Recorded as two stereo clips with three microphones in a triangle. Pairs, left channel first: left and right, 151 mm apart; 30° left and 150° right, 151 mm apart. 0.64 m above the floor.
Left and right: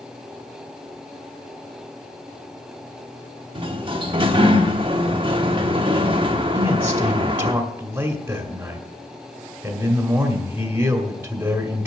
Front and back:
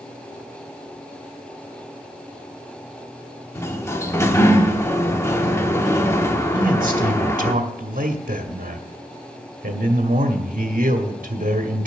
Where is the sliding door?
40° right, 1.0 m.